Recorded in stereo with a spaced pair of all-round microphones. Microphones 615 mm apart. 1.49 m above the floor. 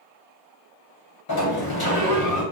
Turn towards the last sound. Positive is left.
turn(degrees=40)  # may be behind; listen again after turning